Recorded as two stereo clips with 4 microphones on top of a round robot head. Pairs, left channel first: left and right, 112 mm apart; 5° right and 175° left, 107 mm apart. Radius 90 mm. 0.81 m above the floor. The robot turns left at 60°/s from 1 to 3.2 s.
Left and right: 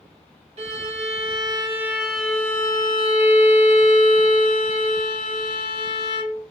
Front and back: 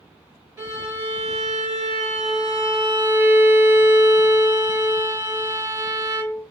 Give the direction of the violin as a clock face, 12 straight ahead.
4 o'clock.